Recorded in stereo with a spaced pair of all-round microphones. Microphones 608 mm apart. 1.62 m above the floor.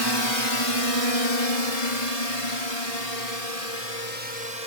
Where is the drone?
40° left (ahead or behind); by 4.7 s 80° left.